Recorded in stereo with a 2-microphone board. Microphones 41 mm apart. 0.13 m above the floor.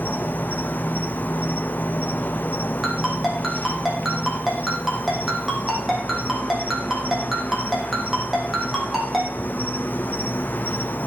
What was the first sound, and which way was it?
An insect, 50° left (ahead or behind).